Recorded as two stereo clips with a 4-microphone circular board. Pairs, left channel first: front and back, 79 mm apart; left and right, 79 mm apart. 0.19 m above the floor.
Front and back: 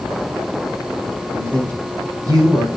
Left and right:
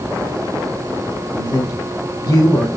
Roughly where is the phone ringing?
No phone ringing in this recording.